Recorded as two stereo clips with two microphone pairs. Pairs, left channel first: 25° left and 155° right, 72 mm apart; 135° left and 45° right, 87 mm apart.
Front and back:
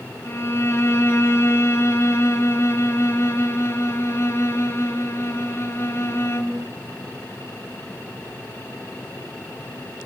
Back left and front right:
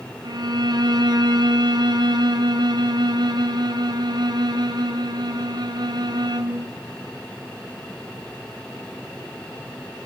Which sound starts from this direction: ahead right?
A violin, at 0.2 s.